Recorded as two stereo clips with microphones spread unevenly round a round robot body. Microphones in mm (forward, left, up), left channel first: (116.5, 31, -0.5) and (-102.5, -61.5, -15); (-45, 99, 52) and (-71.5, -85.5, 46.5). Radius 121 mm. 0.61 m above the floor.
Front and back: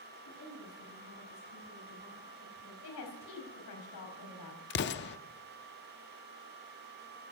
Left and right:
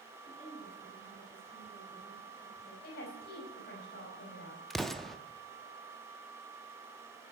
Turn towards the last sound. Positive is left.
turn(degrees=-5)